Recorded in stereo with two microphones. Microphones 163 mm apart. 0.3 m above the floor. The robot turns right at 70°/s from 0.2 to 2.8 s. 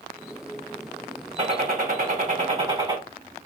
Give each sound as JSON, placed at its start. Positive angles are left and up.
{"t": 1.4, "sound": "a gunshot", "azimuth_deg": -130, "distance_m": 1.7}